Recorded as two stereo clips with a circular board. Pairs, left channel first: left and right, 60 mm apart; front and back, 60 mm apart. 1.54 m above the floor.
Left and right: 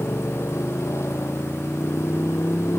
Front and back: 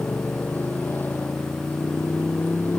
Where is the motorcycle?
55° left.